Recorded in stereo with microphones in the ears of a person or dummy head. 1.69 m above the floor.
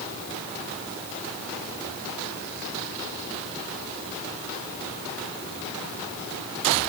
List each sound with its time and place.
Only background noise.